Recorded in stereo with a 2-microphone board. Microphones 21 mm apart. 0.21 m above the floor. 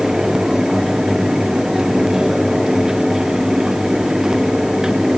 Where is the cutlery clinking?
No cutlery clinking in this recording.